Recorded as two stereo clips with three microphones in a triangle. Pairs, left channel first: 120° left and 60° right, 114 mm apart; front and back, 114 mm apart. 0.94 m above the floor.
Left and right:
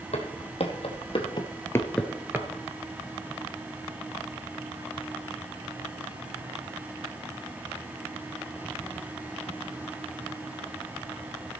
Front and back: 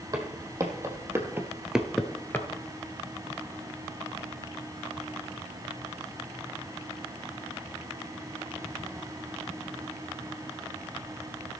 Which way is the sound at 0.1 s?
125° left.